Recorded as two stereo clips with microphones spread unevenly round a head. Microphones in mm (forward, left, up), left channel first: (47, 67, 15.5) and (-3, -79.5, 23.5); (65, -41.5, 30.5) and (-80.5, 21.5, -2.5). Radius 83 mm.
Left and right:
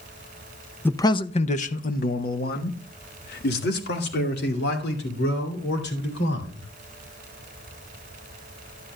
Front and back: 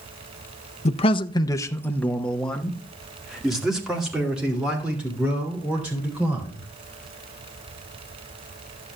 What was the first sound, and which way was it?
A man speaking, 10° left.